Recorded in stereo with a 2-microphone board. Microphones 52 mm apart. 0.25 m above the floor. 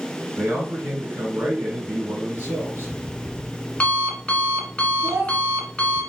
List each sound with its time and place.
0.3 s a man speaking: 65° right (ahead or behind), 3 m
2.4 s an alarm clock: 20° left (ahead or behind), 1.7 m
5.0 s a child speaking: 65° right (ahead or behind), 3.5 m